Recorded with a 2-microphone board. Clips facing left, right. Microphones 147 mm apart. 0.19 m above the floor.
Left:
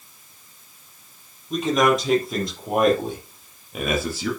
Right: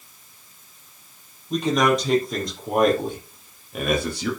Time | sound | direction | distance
1.5 | a man speaking | centre (ahead or behind) | 5.5 m